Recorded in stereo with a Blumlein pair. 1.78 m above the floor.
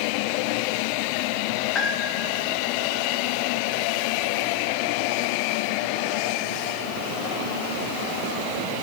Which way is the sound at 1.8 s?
20° left.